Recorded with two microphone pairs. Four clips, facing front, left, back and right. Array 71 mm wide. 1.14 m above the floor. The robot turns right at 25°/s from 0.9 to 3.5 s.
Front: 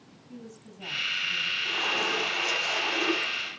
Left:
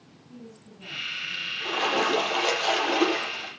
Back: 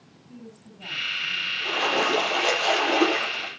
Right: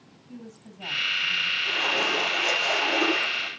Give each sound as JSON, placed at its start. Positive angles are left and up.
{"t": 0.3, "sound": "a woman speaking", "azimuth_deg": -90, "distance_m": 8.0}
{"t": 1.6, "sound": "a splash", "azimuth_deg": 120, "distance_m": 7.0}